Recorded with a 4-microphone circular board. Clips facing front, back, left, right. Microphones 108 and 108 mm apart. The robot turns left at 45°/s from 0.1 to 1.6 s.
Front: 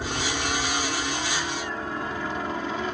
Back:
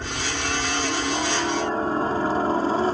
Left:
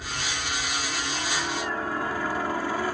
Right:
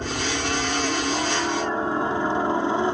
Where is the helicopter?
80° right; by 2.9 s 145° right.